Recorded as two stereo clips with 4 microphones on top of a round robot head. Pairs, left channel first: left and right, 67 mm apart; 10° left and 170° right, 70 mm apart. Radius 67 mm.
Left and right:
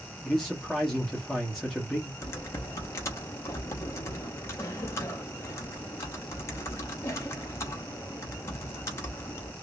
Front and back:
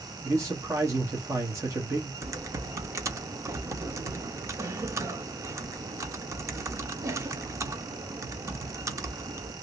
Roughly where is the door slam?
I don't hear a door slam.